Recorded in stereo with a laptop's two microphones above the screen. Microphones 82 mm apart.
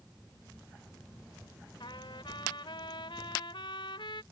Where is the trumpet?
80° left.